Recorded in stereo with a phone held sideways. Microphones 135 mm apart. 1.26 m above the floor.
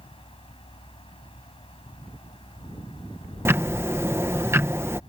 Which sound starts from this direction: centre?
Ticking, at 3.5 s.